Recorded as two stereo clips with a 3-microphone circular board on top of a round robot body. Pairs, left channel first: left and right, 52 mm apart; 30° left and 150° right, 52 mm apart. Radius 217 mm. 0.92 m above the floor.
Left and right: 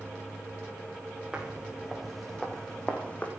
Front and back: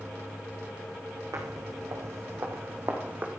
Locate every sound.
1.3 s footsteps: 160° right, 2.5 m; by 3.3 s 150° left, 2.5 m